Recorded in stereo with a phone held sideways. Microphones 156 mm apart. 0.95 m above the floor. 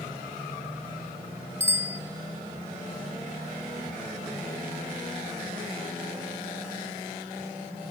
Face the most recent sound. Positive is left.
turn(degrees=-15)  # may be behind; listen again after turning